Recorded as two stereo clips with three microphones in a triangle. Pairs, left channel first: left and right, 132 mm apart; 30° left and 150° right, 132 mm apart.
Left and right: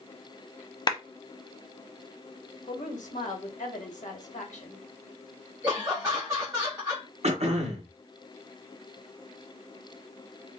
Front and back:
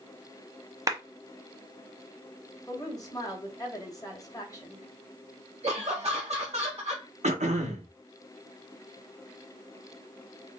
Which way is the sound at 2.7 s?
90° left.